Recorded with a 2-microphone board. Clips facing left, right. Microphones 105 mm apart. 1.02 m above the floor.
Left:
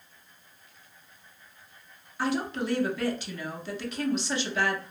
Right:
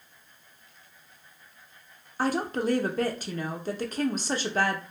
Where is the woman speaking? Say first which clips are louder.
Right 2 dB; 40° right (ahead or behind), 0.6 m.